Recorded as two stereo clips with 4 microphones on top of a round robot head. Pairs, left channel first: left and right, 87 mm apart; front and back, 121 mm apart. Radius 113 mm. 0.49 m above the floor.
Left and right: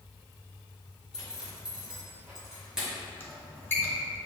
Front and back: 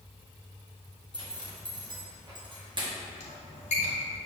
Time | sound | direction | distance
1.1 | a zipper | 165° right | 1.2 m
3.2 | a squeak | 25° left | 1.0 m